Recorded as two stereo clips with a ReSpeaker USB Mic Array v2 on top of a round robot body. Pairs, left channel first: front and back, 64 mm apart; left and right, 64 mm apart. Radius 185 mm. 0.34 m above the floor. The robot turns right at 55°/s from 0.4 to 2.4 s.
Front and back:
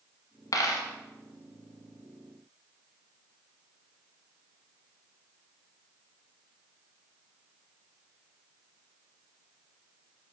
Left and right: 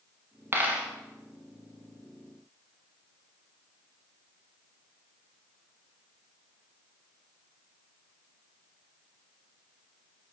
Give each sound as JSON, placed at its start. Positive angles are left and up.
{"t": 0.5, "sound": "a dropped coin", "azimuth_deg": -30, "distance_m": 0.8}